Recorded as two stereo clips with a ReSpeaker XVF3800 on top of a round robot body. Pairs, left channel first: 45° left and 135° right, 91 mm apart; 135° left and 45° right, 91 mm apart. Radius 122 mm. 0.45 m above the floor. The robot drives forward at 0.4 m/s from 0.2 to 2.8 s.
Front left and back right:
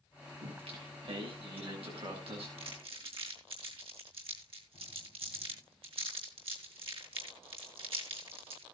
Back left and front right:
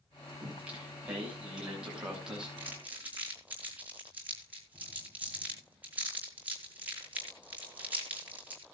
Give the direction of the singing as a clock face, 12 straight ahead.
4 o'clock.